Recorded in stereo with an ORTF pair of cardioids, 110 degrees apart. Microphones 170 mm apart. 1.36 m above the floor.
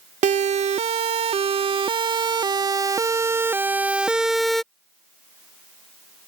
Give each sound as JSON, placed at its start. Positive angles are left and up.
{"t": 0.2, "sound": "a siren", "azimuth_deg": -45}